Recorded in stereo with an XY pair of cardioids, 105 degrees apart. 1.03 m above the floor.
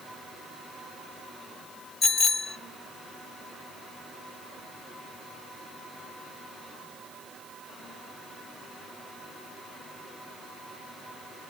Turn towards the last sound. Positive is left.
turn(degrees=45)